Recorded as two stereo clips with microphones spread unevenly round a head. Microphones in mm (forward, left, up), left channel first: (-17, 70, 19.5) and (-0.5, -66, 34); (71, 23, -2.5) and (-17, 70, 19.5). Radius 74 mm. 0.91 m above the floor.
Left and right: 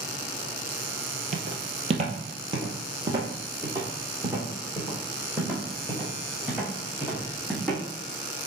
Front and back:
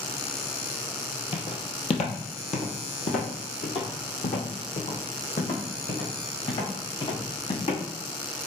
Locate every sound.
1.3 s footsteps: 80° right, 1.2 m; by 7.8 s straight ahead, 4.5 m